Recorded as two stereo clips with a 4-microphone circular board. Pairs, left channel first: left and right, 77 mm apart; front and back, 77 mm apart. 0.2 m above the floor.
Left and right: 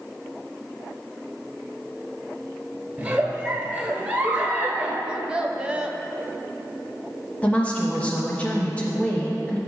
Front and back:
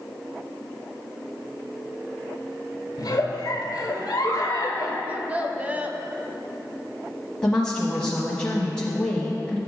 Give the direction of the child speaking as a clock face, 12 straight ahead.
5 o'clock.